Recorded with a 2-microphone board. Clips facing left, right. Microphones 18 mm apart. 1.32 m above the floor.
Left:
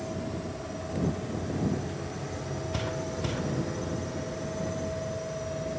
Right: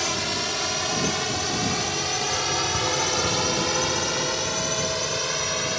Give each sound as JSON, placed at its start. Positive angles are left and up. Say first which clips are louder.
{"t": 0.0, "sound": "a drone", "louder": "right 10 dB", "side_deg": -65}